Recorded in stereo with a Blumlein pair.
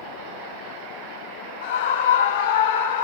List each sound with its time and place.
1.6 s a scream: 65° left, 3 m; by 3.0 s 70° left, 3.5 m